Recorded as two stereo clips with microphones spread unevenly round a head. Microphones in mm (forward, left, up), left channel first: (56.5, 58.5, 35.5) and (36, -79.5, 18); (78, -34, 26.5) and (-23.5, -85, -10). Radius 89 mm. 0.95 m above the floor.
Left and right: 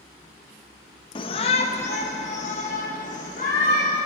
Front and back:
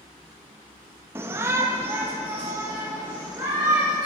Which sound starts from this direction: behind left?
A shout, at 1.1 s.